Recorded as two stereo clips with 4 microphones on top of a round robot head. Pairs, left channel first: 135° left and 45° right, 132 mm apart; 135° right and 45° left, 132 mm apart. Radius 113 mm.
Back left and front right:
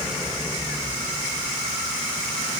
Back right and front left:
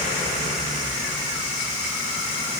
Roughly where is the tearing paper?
No tearing paper in this recording.